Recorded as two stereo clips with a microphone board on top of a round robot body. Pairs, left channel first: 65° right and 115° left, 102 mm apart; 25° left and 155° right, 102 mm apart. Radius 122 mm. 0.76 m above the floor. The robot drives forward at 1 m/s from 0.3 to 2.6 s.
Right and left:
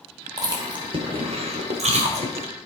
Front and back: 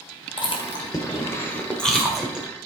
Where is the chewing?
60° left, 2.0 m; by 2.5 s 125° left, 2 m.